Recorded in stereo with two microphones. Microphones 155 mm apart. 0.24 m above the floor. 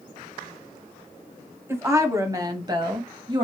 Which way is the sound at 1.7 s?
15° right (ahead or behind).